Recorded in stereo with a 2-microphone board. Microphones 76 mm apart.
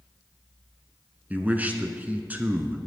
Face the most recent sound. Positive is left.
turn(degrees=-20)  # may be behind; listen again after turning